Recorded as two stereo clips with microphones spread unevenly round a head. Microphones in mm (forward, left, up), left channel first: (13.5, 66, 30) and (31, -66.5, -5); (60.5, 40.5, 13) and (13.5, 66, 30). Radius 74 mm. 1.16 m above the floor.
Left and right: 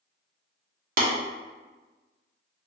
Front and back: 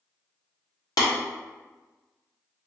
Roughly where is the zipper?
No zipper in this recording.